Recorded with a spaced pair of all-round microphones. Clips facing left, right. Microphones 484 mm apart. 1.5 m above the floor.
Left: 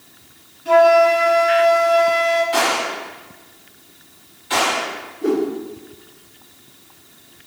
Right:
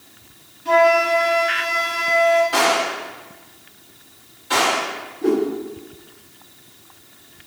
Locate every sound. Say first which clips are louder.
0.7 s a flute: left 4 dB; 20° right (ahead or behind), 1.7 m
2.5 s a gunshot: right 1 dB; 60° right (ahead or behind), 2.0 m
5.2 s a whoosh: even; 15° right (ahead or behind), 0.8 m